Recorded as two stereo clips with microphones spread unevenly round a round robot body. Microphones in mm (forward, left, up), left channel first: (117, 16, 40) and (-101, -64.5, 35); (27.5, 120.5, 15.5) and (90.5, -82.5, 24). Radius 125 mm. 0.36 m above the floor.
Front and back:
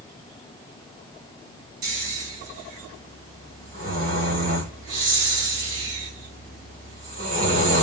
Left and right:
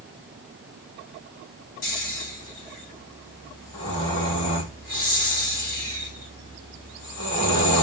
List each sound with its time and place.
1.8 s snoring: 150° left, 1.8 m